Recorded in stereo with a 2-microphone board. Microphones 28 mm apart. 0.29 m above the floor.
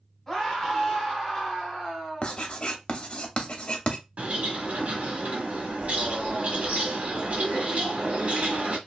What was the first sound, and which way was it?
A scream, 15° left (ahead or behind).